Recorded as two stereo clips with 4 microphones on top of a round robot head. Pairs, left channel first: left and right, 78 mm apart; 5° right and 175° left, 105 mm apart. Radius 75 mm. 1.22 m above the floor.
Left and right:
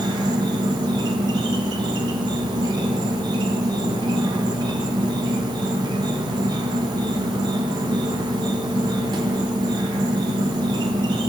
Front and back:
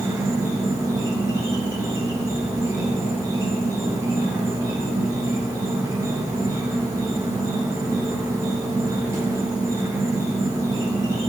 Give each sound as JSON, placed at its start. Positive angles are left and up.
{"t": 0.0, "sound": "an insect", "azimuth_deg": -115, "distance_m": 0.7}